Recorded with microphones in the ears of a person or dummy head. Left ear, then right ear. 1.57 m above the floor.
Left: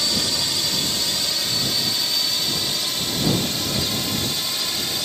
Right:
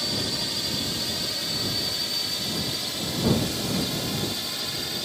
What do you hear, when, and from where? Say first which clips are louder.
0.0 s a drone: left 6 dB; 20° left (ahead or behind)